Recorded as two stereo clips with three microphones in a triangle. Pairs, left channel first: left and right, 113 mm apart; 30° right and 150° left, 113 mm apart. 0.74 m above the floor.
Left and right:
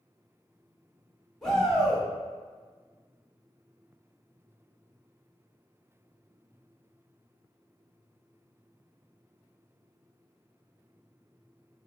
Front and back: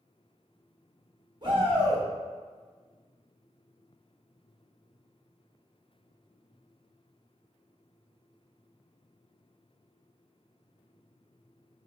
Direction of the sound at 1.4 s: 175° left.